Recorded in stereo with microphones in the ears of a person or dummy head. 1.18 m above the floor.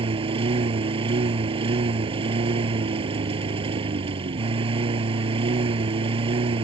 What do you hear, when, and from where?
0.0 s a lawn mower: 30° right (ahead or behind)